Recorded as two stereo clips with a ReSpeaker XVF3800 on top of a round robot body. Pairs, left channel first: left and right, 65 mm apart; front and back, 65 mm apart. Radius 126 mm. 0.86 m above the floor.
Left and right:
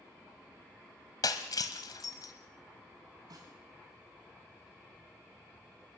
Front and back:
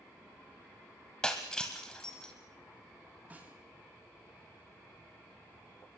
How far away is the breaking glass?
About 0.8 m.